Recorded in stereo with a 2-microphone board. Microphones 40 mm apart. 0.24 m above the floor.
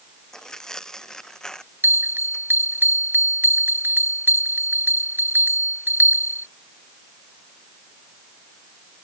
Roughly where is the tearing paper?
Centre.